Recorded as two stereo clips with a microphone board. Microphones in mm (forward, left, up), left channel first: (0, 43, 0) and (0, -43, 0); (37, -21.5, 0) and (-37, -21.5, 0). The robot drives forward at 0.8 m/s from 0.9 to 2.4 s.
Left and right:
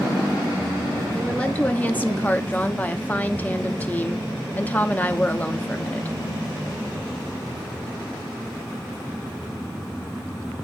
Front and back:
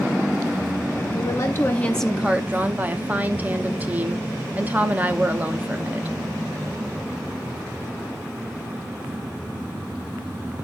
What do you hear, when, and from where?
1.1 s a woman speaking: 15° left, 1.0 m; by 6.2 s 140° left, 0.7 m